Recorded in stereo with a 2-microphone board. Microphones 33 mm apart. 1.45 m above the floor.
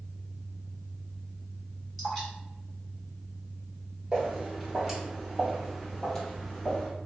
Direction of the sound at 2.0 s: 15° left (ahead or behind).